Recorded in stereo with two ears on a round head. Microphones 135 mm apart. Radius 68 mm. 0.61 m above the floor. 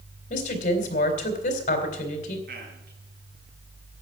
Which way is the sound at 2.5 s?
70° right (ahead or behind).